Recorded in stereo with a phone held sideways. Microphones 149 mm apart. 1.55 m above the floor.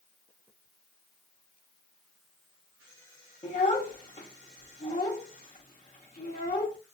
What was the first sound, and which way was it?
A child speaking, 55° left (ahead or behind).